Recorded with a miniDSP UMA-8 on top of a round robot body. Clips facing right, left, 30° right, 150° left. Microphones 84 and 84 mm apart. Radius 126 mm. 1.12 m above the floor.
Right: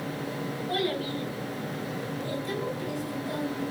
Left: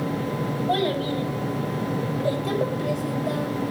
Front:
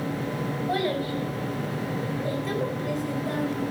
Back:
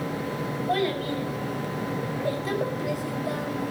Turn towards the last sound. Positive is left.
turn(degrees=75)